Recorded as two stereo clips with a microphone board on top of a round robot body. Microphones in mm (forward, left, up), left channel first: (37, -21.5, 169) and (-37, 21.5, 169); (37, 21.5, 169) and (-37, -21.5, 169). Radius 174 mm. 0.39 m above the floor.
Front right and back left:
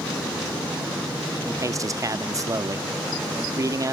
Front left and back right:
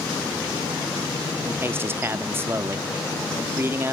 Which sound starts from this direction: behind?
A man speaking, at 1.5 s.